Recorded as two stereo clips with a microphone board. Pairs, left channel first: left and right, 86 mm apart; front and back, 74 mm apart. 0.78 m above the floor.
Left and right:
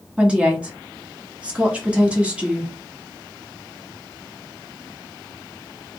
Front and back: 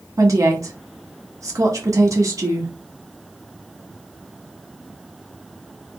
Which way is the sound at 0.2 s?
160° right.